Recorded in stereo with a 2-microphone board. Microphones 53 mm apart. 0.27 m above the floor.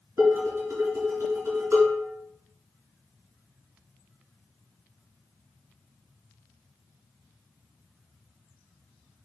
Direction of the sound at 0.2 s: 50° right (ahead or behind).